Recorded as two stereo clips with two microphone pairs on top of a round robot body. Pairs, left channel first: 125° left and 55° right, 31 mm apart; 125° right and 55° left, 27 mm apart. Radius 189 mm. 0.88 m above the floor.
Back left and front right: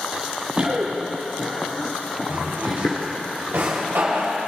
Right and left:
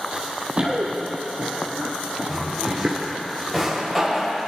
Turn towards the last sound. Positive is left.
turn(degrees=-30)